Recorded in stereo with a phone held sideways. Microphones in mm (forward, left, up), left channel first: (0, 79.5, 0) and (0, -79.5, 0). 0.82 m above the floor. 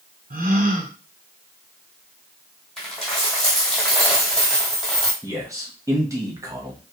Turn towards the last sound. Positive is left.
turn(degrees=-20)  # may be behind; listen again after turning